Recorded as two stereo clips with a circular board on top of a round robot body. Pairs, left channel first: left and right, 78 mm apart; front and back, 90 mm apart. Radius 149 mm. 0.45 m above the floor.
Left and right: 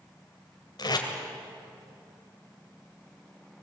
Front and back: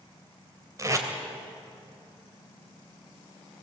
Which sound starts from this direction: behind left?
Tape being pulled, at 0.8 s.